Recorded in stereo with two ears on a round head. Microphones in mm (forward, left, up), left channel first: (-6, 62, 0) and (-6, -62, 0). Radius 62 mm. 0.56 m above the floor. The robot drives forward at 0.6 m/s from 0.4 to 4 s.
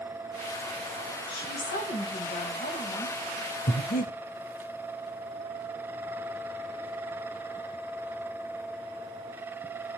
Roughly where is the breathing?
Left.